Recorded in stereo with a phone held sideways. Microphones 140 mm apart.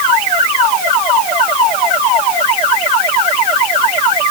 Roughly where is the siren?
I don't hear a siren.